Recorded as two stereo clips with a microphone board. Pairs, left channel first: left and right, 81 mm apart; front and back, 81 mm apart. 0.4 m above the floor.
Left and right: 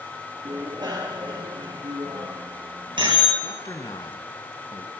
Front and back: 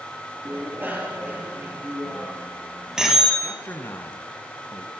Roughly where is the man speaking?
Ahead left.